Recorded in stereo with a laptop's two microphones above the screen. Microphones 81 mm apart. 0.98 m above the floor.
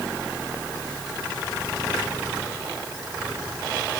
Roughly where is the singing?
I don't hear singing.